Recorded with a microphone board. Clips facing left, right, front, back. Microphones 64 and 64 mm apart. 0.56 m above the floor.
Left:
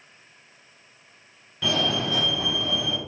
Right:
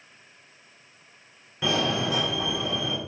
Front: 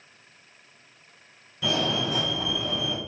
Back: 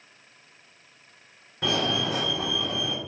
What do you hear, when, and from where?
1.6 s a fire alarm: 155° right, 3 m